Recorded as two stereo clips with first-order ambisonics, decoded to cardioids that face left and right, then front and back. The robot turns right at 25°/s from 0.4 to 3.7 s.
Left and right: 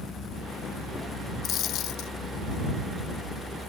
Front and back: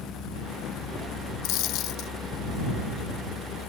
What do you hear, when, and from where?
1.4 s a dropped coin: 35° left; by 2.1 s 50° left